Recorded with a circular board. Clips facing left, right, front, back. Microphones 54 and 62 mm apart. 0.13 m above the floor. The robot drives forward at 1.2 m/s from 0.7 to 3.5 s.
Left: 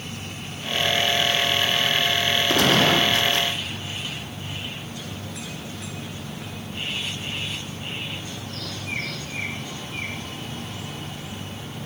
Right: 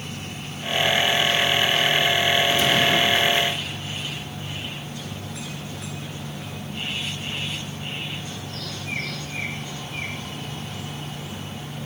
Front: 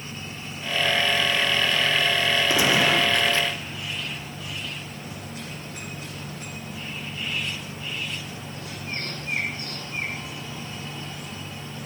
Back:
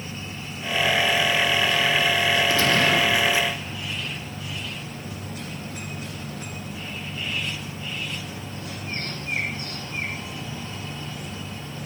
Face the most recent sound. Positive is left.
turn(degrees=105)